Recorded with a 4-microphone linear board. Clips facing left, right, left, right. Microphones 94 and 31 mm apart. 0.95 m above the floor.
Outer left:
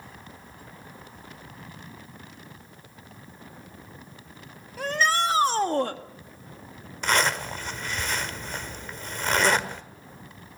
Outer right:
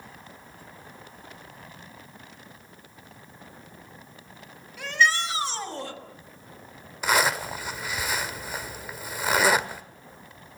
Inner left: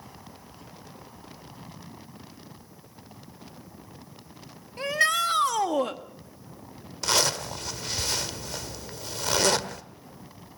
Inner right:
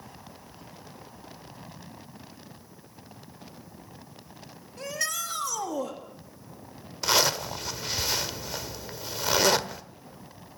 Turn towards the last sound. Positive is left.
turn(degrees=-5)  # may be behind; listen again after turning